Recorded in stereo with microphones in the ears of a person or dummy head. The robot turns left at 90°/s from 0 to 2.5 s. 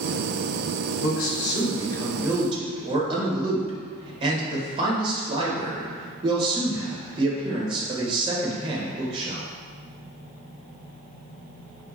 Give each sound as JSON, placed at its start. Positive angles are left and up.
{"t": 1.0, "sound": "a man speaking", "azimuth_deg": 105, "distance_m": 1.5}